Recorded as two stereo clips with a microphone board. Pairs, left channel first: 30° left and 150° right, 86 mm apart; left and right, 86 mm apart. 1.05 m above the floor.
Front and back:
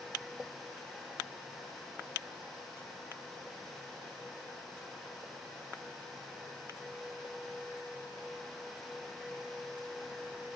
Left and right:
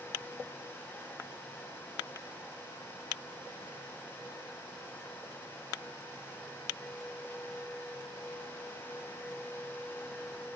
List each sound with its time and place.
Only background noise.